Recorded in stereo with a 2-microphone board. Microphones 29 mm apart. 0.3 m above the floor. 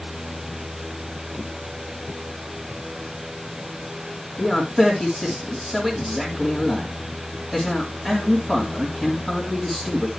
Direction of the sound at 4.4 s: 10° right (ahead or behind).